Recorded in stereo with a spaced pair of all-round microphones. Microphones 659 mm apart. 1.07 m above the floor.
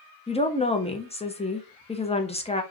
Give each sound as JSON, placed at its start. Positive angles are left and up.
{"t": 0.3, "sound": "a woman speaking", "side_deg": 10, "distance_m": 0.5}